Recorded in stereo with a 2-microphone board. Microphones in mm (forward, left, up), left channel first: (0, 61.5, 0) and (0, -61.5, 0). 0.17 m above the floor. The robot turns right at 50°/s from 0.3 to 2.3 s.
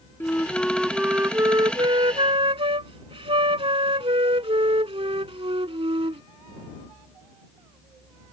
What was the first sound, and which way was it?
A flute, 155° left.